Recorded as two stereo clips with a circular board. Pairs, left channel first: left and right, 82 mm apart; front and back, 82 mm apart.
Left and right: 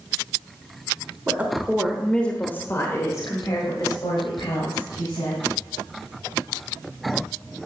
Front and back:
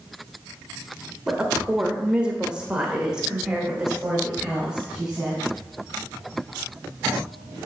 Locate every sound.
1.3 s a woman speaking: 115° right, 1.1 m; by 5.4 s 95° left, 2.5 m